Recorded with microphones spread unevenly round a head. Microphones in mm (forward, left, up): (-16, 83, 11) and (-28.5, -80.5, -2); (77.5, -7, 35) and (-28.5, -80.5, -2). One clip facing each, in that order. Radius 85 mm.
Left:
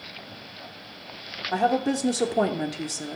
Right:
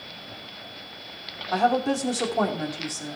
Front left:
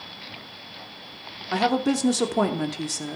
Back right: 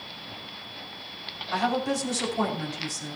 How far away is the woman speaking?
About 3 m.